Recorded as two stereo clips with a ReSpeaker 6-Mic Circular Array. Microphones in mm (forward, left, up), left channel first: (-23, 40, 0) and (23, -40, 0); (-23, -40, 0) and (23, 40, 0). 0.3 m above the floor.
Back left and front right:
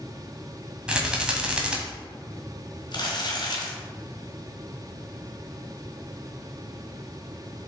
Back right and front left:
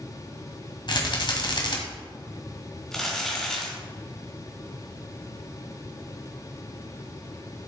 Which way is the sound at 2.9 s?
155° left.